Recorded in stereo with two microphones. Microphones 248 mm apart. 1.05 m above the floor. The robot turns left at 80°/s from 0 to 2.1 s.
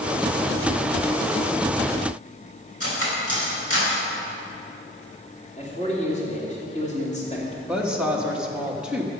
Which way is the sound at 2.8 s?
70° left (ahead or behind).